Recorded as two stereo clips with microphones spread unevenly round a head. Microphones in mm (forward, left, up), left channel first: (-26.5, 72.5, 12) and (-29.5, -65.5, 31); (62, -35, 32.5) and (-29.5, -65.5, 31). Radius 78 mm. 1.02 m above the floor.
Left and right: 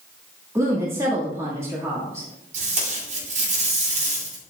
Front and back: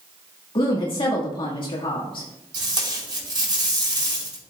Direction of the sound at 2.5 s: 125° right.